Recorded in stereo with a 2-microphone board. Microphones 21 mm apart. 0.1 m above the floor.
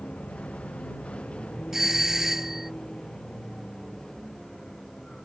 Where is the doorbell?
20° right (ahead or behind).